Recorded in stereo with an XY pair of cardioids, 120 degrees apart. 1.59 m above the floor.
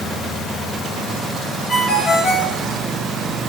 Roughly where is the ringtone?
Ahead left.